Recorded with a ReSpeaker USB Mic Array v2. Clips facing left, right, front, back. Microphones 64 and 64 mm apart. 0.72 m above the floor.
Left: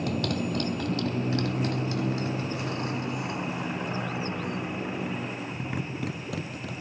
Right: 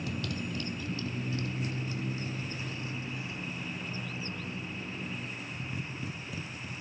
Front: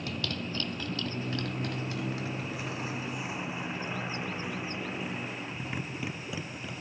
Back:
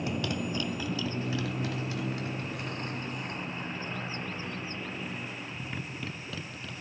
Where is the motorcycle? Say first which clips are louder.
Left 8 dB, back 4 dB; 110° left; by 6.8 s 75° left.